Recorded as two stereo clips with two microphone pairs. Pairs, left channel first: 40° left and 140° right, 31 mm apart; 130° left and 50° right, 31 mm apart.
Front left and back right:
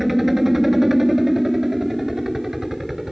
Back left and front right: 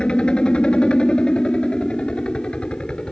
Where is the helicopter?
145° left; by 3.1 s 155° left.